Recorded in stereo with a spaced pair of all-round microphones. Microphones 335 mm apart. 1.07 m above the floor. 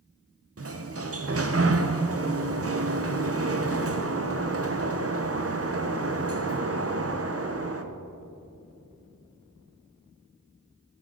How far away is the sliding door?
About 0.6 m.